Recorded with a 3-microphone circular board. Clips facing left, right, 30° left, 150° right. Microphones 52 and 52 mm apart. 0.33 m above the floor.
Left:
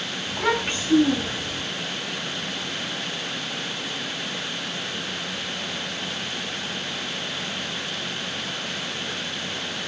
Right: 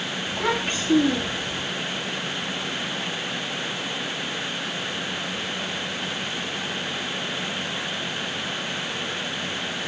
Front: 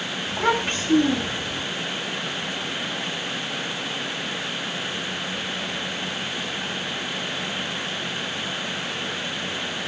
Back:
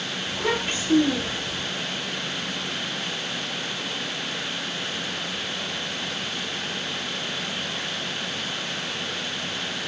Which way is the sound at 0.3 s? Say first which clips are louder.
Left 2 dB, front 4 dB; 5° right.